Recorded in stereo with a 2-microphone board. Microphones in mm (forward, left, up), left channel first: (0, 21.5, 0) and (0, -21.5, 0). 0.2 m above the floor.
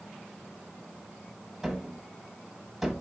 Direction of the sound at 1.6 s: 5° right (ahead or behind).